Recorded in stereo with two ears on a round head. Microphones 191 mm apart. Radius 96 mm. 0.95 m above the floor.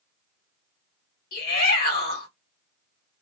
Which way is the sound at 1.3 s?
45° left (ahead or behind).